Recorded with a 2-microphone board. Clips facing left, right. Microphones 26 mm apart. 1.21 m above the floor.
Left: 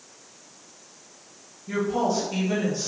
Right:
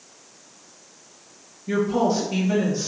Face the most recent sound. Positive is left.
turn(degrees=-5)  # may be behind; listen again after turning